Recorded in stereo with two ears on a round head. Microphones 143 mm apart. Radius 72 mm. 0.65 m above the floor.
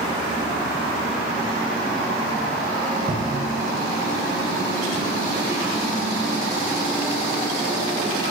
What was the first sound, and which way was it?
A cupboard door, 40° right (ahead or behind).